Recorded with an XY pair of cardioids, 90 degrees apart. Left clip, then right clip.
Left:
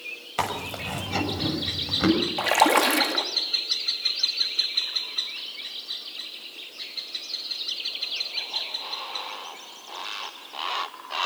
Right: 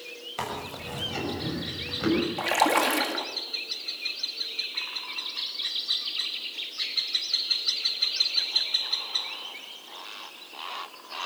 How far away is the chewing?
About 6.5 m.